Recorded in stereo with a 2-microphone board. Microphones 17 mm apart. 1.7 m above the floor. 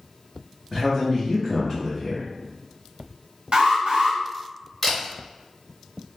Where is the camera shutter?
5° left (ahead or behind), 1.6 m.